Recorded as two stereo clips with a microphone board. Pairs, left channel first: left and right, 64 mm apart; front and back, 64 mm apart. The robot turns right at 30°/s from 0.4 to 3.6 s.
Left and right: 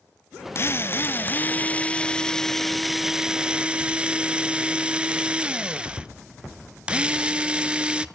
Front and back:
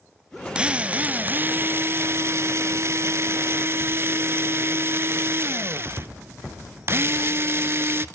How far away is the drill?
About 0.6 m.